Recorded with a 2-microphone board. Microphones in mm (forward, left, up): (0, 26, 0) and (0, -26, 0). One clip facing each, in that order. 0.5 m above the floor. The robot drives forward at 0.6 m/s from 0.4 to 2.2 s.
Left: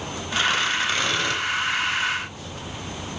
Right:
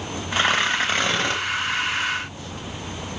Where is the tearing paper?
35° right (ahead or behind), 3 m; by 1.4 s 30° right (ahead or behind), 3.5 m.